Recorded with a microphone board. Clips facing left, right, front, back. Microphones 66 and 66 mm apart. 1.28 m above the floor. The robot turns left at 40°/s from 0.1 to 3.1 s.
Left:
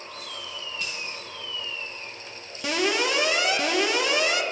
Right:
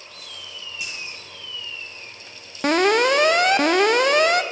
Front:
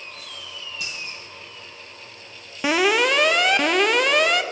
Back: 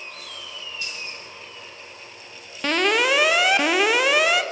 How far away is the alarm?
About 0.6 m.